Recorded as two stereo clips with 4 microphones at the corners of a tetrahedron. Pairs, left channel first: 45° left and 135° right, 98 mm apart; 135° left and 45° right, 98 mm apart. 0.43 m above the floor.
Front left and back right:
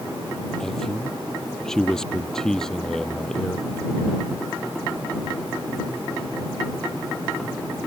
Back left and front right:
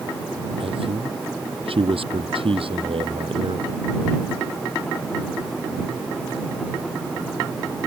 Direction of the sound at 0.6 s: 40° right.